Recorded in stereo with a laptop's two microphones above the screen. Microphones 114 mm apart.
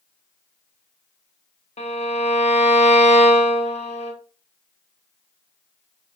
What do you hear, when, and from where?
1.8 s a violin: 60° left (ahead or behind), 0.6 m